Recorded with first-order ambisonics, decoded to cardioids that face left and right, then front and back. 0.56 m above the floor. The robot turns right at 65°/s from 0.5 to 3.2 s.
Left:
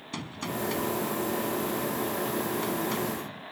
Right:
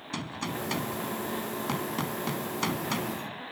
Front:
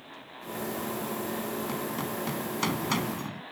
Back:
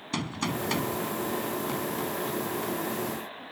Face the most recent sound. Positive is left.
turn(degrees=0)